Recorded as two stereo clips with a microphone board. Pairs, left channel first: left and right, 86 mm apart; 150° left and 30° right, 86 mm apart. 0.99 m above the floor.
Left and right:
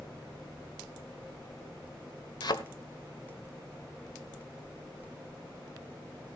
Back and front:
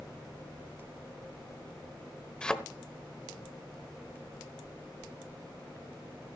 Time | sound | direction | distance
2.4 | a thud | 70° left | 1.1 m